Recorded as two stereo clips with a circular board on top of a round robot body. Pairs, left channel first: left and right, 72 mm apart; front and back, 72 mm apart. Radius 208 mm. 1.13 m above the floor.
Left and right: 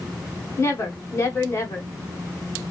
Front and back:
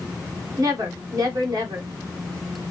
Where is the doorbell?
I don't hear a doorbell.